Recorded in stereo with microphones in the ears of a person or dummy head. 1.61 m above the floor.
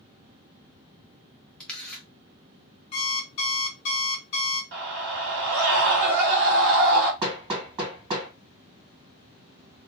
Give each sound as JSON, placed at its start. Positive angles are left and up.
{"t": 1.6, "sound": "a camera shutter", "side_deg": 0, "distance_m": 0.6}
{"t": 2.9, "sound": "an alarm clock", "side_deg": 20, "distance_m": 0.7}
{"t": 4.7, "sound": "a scream", "side_deg": -70, "distance_m": 1.4}
{"t": 7.2, "sound": "hammering", "side_deg": -30, "distance_m": 1.6}